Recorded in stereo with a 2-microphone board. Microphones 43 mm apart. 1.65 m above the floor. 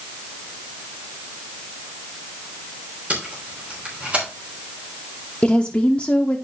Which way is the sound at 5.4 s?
35° left (ahead or behind).